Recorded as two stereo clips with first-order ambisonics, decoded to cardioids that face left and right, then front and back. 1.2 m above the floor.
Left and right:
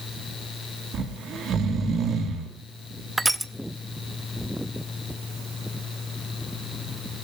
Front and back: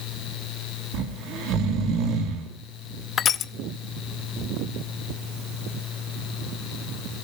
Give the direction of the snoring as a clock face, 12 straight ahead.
5 o'clock.